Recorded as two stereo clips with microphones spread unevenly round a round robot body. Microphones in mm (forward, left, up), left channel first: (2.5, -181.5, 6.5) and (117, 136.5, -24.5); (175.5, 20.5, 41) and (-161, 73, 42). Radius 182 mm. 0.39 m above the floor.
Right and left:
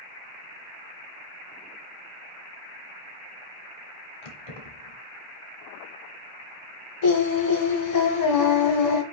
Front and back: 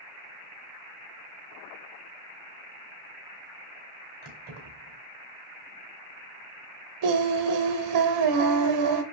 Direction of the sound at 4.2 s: 125° right.